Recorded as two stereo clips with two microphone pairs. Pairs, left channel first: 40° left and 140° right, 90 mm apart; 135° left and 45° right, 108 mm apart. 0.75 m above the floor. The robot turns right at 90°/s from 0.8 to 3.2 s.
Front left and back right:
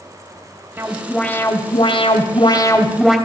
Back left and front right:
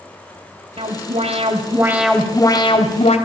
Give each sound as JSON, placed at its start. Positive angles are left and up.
{"t": 0.8, "sound": "an alarm", "azimuth_deg": -70, "distance_m": 3.0}